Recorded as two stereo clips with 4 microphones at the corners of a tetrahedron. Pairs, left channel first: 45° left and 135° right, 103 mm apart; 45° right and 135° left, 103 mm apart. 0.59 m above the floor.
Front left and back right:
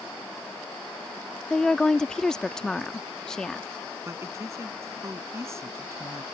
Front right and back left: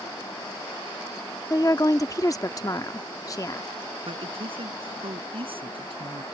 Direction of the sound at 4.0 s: 165° left.